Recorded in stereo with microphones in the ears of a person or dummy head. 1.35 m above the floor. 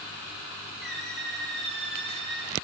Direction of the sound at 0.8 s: 5° right (ahead or behind).